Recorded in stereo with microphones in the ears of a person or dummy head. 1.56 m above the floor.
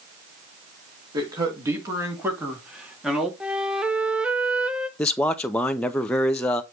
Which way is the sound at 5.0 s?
10° left (ahead or behind).